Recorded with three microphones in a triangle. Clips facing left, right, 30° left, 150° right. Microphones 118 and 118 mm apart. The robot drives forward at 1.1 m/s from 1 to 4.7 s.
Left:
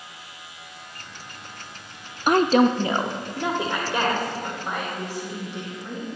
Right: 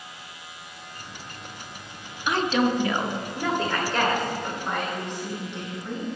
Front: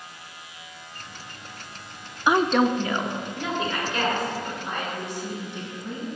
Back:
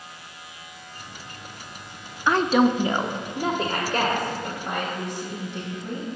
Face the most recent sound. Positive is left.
turn(degrees=170)